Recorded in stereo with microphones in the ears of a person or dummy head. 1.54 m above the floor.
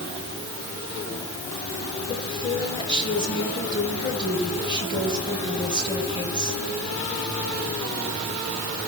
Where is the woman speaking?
25° left (ahead or behind), 8.5 m.